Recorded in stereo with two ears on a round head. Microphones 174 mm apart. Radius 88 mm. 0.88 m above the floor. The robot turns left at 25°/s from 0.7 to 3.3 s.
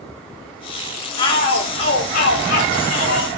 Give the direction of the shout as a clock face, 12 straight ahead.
7 o'clock.